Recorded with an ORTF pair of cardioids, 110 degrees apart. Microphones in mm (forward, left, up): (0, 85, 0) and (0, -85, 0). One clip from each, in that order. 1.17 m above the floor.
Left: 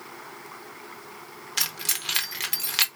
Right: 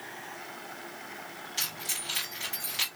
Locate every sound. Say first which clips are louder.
1.6 s keys jangling: left 6 dB; 65° left, 0.9 m